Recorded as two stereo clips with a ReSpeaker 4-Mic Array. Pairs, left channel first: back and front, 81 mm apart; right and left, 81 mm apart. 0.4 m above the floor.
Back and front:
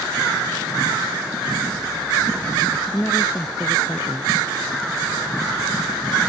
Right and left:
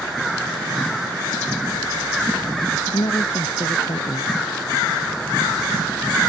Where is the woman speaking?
110° right.